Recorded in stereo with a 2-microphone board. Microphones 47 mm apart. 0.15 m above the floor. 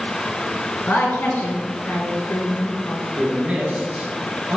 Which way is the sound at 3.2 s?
30° right (ahead or behind).